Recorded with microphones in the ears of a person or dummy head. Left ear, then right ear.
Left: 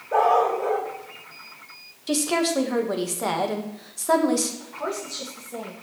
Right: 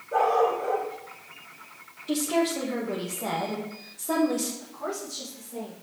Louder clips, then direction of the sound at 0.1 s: Left 3 dB; 30° left (ahead or behind).